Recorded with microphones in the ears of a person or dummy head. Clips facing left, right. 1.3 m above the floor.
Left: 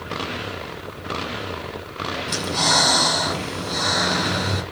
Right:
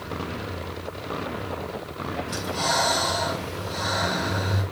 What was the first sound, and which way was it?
Breathing, 55° left (ahead or behind).